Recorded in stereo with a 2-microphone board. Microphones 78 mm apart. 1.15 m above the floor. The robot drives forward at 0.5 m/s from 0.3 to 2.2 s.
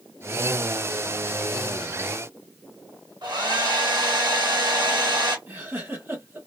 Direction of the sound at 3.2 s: 70° right (ahead or behind).